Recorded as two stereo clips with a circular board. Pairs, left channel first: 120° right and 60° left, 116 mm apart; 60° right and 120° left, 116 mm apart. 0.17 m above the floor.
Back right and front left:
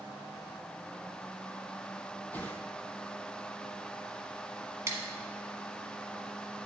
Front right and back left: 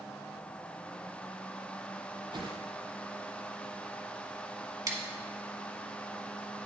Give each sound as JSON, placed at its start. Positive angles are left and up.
{"t": 2.3, "sound": "a whoosh", "azimuth_deg": 165, "distance_m": 1.0}
{"t": 4.9, "sound": "scissors", "azimuth_deg": 100, "distance_m": 1.1}